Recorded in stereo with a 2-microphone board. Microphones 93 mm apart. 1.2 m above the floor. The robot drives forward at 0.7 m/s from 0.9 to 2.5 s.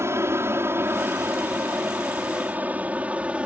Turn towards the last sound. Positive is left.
turn(degrees=-15)  # may be behind; listen again after turning